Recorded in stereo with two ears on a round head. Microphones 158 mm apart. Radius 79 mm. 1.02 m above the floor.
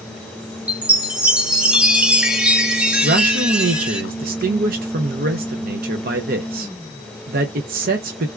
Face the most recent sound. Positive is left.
turn(degrees=-50)  # may be behind; listen again after turning